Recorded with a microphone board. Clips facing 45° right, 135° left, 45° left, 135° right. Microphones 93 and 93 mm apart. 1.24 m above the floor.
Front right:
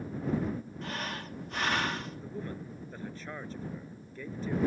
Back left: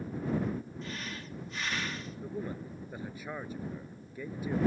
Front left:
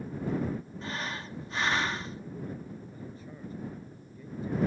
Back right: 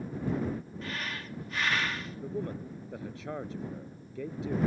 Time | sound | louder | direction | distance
0.8 | breathing | front right 3 dB, front left 2 dB | 20° right | ?
2.2 | a man speaking | back left 2 dB, back right 4 dB | 145° right | ?